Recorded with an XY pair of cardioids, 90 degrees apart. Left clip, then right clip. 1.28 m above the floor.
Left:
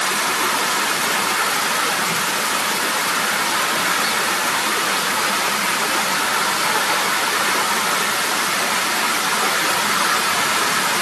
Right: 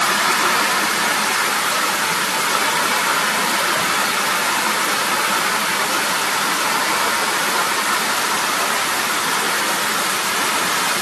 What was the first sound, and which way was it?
Only background noise.